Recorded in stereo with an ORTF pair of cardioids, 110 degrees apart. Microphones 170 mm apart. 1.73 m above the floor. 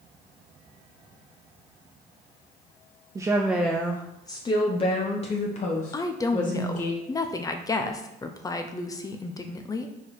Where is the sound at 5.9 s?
20° left, 0.7 m.